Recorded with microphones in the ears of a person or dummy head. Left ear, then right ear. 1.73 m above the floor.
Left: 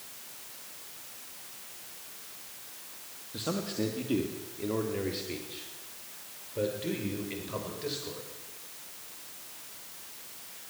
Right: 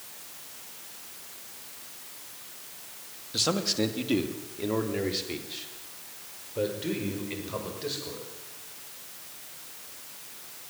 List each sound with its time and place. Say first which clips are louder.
3.3 s a man speaking: right 7 dB; 50° right (ahead or behind), 2.5 m; by 8.2 s 5° right (ahead or behind), 6.5 m